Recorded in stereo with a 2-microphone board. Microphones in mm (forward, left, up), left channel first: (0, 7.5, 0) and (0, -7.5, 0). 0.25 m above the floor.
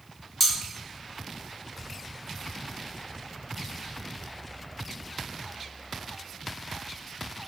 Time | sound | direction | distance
0.4 | cutlery clinking | 20° left (ahead or behind) | 1.4 m